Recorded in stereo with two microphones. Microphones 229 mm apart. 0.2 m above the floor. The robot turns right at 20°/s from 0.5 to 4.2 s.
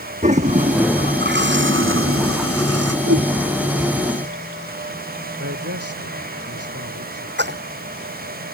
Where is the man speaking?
75° right (ahead or behind).